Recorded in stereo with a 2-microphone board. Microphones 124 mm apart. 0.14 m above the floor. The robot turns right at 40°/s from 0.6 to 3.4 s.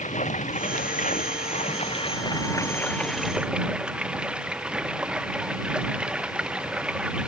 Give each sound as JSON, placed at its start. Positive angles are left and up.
{"t": 0.0, "sound": "running water", "azimuth_deg": 75}